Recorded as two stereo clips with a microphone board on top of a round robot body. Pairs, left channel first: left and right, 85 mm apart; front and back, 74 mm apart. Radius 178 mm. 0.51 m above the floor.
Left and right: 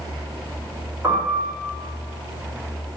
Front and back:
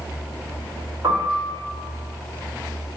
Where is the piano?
150° right, 1.9 m.